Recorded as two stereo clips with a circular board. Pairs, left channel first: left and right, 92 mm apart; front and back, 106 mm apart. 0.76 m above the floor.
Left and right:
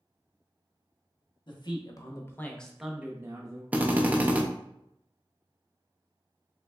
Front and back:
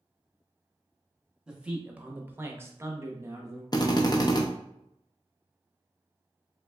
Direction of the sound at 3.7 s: 25° right.